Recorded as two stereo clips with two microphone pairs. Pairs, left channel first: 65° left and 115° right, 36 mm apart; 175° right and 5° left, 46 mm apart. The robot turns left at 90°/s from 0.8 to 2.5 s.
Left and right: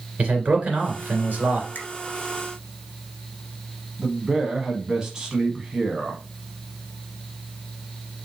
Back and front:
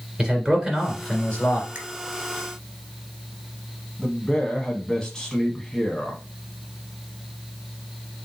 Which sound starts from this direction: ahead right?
A man speaking, at 0.2 s.